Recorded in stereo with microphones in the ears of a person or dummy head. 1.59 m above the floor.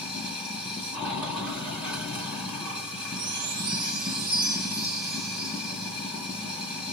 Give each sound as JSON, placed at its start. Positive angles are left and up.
{"t": 0.0, "sound": "running water", "side_deg": 0, "distance_m": 2.0}
{"t": 3.1, "sound": "a chime", "side_deg": -55, "distance_m": 1.6}